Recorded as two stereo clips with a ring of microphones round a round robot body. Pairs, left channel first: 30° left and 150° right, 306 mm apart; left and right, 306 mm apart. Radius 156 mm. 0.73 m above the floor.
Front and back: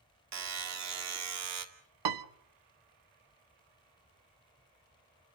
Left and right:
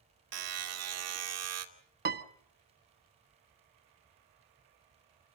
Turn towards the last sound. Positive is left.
turn(degrees=-150)